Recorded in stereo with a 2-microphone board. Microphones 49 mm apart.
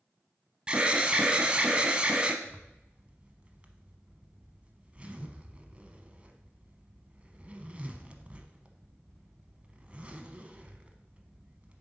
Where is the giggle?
I don't hear a giggle.